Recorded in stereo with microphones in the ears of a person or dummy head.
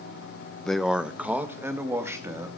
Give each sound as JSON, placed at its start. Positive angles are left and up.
{"t": 0.7, "sound": "a man speaking", "side_deg": 5, "distance_m": 0.7}